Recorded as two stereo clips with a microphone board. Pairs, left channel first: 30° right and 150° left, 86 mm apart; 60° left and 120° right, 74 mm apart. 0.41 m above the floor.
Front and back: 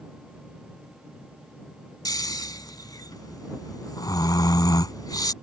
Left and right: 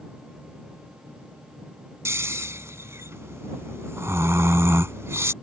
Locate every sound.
2.0 s snoring: 70° right